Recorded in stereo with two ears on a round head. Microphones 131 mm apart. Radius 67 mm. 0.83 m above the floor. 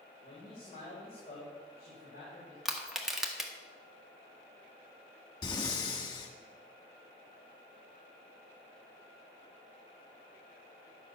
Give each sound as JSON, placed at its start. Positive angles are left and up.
{"t": 0.2, "sound": "a man speaking", "side_deg": 40, "distance_m": 3.0}
{"t": 2.6, "sound": "crushing", "side_deg": 0, "distance_m": 1.4}
{"t": 5.4, "sound": "breathing", "side_deg": 25, "distance_m": 1.6}